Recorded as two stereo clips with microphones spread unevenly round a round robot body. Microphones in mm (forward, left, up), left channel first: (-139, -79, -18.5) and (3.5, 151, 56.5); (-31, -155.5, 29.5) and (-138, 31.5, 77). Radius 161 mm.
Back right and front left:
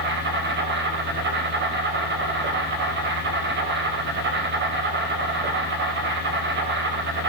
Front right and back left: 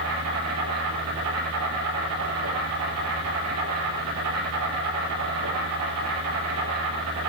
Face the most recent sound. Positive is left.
turn(degrees=105)